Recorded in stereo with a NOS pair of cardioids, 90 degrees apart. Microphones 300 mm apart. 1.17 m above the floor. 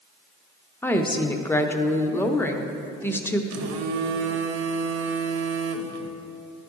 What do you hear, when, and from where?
0.8 s a woman speaking: 5° left, 0.6 m
3.5 s a phone buzzing: 55° right, 0.6 m